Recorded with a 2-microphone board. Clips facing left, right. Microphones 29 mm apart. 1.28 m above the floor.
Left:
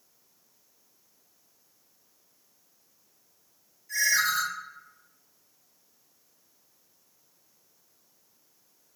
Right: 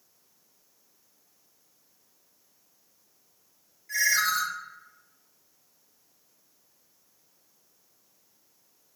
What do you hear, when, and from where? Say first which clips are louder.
3.9 s a ringtone: even; 40° right (ahead or behind), 1.8 m